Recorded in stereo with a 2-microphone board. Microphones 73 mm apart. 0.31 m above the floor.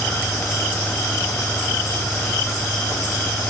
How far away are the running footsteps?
No running footsteps in this recording.